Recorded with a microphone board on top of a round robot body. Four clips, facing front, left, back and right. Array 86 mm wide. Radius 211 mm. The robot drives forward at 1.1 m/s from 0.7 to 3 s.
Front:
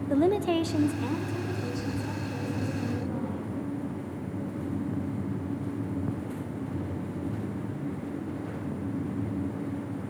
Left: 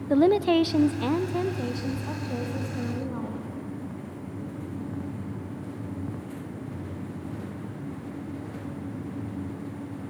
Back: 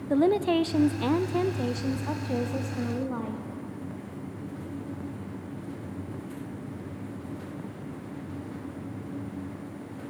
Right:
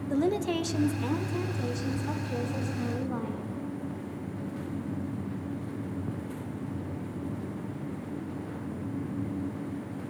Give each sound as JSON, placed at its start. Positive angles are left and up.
{"t": 0.1, "sound": "a woman speaking", "azimuth_deg": 100, "distance_m": 0.9}